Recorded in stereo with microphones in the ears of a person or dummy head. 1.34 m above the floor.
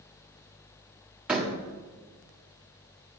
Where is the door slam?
5° right (ahead or behind), 1.6 m.